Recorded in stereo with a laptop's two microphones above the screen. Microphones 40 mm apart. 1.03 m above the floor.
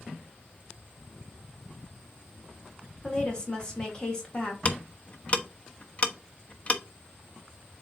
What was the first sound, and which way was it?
A woman speaking, 20° left (ahead or behind).